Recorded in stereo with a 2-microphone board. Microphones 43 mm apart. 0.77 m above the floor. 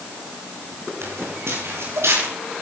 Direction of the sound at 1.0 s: 85° right.